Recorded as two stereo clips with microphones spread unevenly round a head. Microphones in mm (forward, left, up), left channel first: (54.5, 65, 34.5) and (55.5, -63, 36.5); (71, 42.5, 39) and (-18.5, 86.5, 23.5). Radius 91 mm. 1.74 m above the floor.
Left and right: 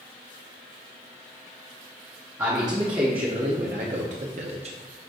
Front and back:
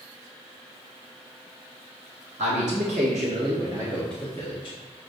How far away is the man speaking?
About 1.1 m.